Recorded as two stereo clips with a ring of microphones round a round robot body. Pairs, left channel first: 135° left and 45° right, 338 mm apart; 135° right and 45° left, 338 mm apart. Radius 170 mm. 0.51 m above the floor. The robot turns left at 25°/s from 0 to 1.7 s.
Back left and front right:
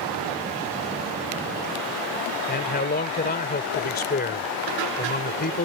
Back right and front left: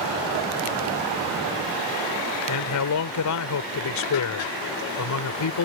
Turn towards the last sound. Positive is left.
turn(degrees=-165)